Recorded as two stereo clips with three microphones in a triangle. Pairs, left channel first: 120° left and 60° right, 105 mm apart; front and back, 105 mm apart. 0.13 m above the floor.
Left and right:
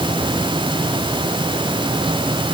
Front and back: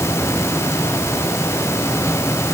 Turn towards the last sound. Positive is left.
No sound to turn to.